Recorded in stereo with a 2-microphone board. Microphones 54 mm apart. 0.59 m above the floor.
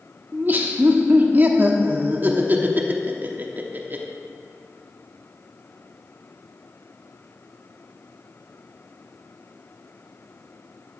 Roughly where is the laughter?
Right.